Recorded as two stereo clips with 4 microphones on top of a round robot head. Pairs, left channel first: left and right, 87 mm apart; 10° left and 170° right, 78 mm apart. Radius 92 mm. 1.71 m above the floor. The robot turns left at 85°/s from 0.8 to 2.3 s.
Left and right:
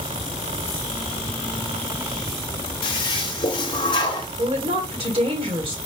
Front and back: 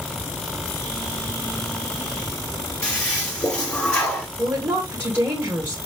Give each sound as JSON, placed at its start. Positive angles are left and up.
{"t": 2.8, "sound": "a toilet flushing", "azimuth_deg": 80, "distance_m": 0.8}
{"t": 4.4, "sound": "a woman speaking", "azimuth_deg": -100, "distance_m": 1.5}